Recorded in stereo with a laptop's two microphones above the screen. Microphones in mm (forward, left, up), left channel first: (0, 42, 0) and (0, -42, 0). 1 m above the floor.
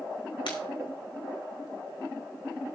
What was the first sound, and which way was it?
Breaking glass, 80° left.